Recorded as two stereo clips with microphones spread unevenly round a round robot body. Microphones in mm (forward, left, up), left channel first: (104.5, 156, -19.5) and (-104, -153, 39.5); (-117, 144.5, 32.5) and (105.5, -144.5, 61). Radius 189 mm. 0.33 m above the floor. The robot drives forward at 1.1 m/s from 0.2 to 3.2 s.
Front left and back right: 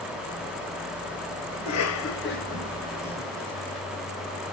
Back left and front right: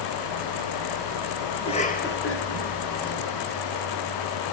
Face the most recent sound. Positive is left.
turn(degrees=135)